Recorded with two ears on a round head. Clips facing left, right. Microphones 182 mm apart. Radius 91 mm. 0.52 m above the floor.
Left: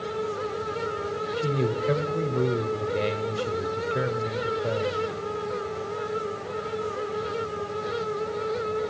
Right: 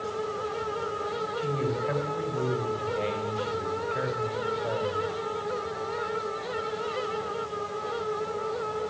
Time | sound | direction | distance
1.4 | a man speaking | 50° left (ahead or behind) | 2.5 m